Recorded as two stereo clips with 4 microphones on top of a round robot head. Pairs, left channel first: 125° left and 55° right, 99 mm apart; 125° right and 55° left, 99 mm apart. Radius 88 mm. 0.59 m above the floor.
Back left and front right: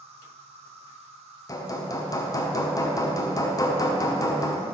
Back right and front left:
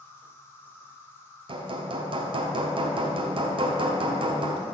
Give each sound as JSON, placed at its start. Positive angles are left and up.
{"t": 0.0, "sound": "an insect", "azimuth_deg": -55, "distance_m": 0.9}
{"t": 1.5, "sound": "hammering", "azimuth_deg": 75, "distance_m": 1.0}